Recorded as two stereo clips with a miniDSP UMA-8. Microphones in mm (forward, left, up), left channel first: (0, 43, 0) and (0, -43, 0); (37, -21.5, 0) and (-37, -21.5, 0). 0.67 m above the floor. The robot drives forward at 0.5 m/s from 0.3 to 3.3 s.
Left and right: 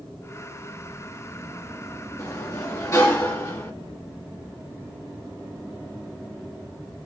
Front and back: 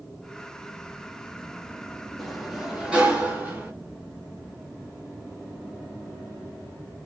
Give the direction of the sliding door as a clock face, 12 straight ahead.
9 o'clock.